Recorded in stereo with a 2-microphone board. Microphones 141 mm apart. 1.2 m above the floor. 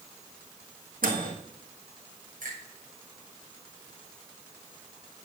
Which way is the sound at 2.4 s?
75° right (ahead or behind).